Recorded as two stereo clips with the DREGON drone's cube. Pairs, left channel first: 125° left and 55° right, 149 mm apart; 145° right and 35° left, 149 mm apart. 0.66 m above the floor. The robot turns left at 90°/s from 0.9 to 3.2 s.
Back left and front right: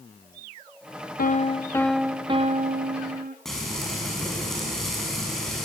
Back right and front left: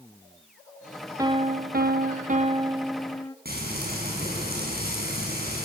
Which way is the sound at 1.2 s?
100° left.